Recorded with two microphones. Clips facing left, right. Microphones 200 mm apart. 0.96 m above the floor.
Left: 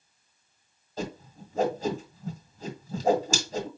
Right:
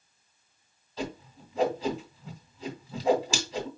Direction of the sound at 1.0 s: 50° left (ahead or behind).